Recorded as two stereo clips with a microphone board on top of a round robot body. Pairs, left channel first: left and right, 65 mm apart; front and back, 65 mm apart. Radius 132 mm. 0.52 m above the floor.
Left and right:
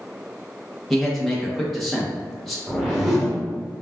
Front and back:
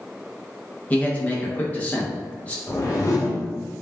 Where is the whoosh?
5° right, 1.5 m.